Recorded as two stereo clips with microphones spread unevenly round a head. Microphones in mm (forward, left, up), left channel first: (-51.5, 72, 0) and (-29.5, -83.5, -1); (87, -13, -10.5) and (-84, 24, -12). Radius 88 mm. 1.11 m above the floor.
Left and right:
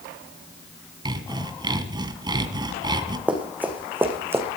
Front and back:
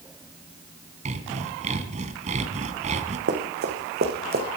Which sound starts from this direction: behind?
Running footsteps, at 3.3 s.